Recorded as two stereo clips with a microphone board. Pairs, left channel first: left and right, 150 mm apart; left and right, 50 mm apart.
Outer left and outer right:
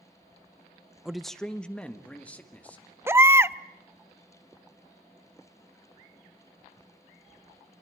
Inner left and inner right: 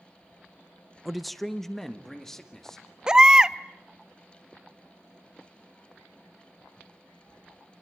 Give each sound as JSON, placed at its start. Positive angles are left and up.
{"t": 1.1, "sound": "a man speaking", "side_deg": -5, "distance_m": 0.5}
{"t": 3.1, "sound": "a baby crying", "side_deg": -15, "distance_m": 0.6}